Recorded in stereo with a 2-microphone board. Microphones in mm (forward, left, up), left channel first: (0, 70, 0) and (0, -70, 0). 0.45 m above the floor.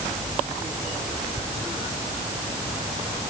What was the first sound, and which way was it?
Only background noise.